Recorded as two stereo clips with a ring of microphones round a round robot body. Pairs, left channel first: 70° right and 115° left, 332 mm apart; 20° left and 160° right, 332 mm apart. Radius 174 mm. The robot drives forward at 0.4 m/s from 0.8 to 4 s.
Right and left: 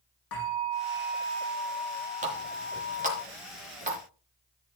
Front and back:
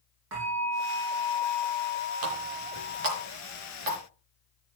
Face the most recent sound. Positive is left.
turn(degrees=180)